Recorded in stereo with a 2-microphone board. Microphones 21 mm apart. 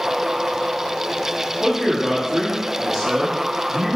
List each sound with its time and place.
1.6 s a man speaking: 10° right (ahead or behind), 1.5 m